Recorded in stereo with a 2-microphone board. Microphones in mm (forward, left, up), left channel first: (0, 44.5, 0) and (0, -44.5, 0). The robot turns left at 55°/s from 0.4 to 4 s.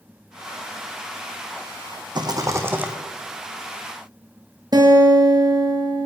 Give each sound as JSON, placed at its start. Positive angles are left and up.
{"t": 2.1, "sound": "a rattle", "azimuth_deg": -125, "distance_m": 1.5}
{"t": 4.7, "sound": "a guitar", "side_deg": -50, "distance_m": 2.0}